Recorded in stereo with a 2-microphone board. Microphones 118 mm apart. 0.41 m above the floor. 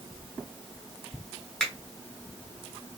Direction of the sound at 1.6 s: 5° left (ahead or behind).